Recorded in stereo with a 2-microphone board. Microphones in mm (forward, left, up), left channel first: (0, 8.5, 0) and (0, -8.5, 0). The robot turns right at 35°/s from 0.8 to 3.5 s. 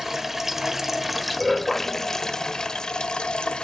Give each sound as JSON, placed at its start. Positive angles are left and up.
{"t": 0.0, "sound": "running water", "azimuth_deg": -20, "distance_m": 1.1}